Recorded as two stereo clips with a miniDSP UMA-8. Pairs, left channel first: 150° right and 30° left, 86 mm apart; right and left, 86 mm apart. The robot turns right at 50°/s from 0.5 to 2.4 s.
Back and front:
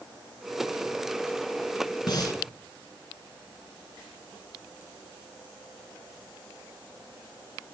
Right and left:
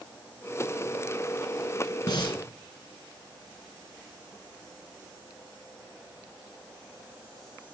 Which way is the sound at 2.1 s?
120° right.